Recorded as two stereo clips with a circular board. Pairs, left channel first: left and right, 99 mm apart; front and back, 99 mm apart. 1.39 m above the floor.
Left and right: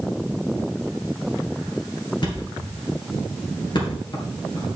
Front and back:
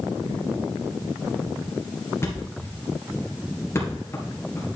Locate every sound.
2.2 s a thud: 60° left, 3 m